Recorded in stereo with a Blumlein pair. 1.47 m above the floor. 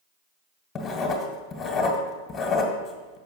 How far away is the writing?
About 1.3 m.